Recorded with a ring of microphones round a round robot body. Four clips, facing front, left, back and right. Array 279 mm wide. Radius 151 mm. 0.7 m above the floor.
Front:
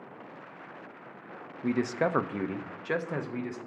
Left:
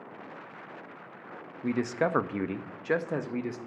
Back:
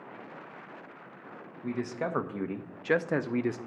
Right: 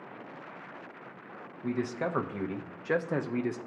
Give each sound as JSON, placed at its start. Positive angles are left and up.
{"t": 1.6, "sound": "a man speaking", "azimuth_deg": 45, "distance_m": 0.8}